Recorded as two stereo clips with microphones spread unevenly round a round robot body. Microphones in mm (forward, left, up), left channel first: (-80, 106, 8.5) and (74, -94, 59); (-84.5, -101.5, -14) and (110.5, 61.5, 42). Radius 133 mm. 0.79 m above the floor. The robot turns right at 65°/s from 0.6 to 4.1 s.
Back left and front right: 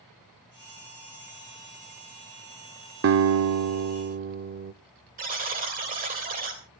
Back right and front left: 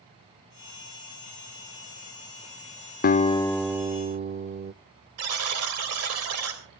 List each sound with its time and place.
3.0 s a guitar: 80° right, 0.6 m; by 4.7 s 10° right, 0.6 m
5.2 s a buzzer: 10° left, 3 m